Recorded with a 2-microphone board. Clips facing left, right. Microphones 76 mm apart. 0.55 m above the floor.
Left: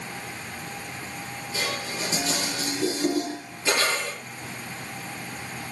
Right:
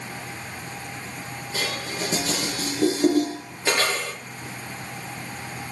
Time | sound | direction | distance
1.5 | dishes clattering | 55° right (ahead or behind) | 9 m